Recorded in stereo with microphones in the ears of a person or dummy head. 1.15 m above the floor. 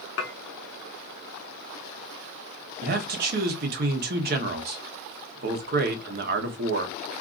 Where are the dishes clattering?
85° left, 0.8 m.